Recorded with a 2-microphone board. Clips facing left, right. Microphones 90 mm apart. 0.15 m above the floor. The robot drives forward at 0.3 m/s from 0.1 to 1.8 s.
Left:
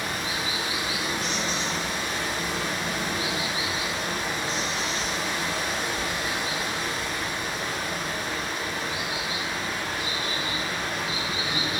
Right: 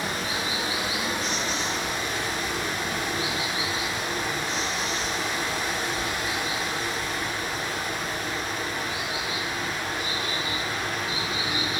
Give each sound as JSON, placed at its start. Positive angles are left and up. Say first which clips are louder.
{"t": 0.0, "sound": "running water", "louder": "right 1 dB", "side_deg": -30, "distance_m": 1.1}